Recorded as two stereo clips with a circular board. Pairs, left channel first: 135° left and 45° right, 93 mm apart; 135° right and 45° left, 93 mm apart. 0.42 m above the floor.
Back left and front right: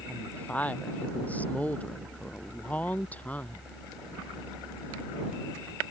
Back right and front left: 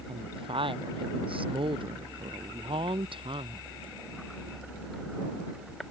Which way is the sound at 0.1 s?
60° left.